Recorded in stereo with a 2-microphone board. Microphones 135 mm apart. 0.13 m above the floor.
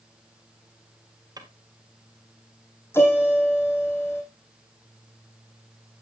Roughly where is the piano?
Centre.